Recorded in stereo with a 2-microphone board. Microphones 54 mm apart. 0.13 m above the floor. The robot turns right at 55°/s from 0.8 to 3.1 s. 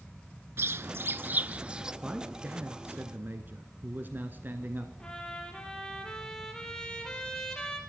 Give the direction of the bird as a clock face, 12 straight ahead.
2 o'clock.